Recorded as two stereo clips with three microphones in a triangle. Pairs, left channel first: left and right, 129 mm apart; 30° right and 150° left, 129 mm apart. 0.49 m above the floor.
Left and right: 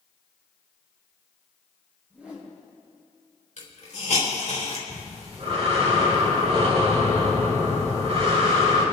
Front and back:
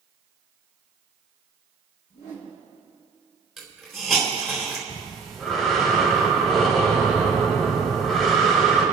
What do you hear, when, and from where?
2.1 s a whoosh: 10° right, 4 m
3.6 s a hiss: 60° left, 4 m
4.9 s breathing: 120° right, 3 m